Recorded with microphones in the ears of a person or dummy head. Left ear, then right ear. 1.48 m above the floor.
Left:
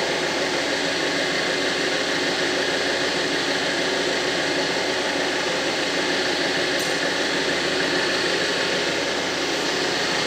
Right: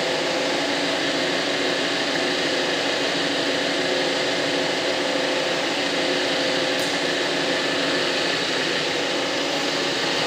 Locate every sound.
0.0 s an engine running: centre (ahead or behind), 3.5 m